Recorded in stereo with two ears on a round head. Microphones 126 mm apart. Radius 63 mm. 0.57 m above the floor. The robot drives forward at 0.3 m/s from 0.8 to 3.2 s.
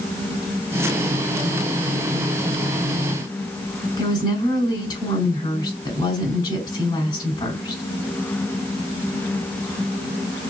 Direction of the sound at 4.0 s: 25° left (ahead or behind).